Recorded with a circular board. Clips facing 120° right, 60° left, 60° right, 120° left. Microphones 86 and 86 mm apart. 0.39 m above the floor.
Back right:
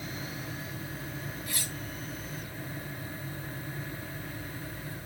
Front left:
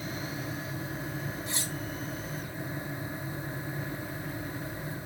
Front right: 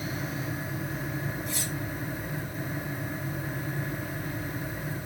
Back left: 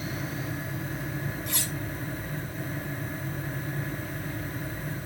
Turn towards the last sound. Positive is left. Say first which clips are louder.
# front left 3 dB, even
turn(degrees=125)